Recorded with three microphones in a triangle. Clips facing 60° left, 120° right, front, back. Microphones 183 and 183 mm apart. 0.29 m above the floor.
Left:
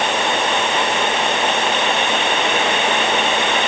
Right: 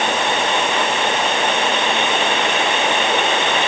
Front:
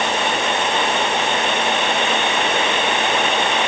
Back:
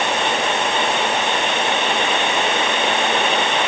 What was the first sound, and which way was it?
Only background noise.